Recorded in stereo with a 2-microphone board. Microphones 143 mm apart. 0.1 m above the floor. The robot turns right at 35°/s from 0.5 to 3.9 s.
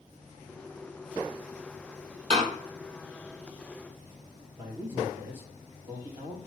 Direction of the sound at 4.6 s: 15° right (ahead or behind).